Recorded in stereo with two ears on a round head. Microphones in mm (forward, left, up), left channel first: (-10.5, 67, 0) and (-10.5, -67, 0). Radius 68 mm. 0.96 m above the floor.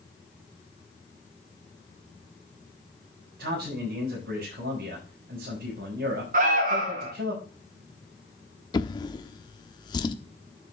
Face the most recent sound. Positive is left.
turn(degrees=30)  # may be behind; listen again after turning